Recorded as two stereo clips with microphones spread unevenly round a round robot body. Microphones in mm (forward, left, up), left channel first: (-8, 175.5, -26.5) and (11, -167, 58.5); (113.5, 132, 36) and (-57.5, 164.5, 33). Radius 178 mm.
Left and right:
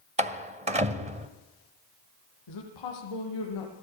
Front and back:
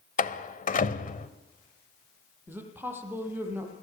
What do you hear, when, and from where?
0.2 s a door slam: 10° right, 1.4 m
2.5 s a woman speaking: 90° left, 9.5 m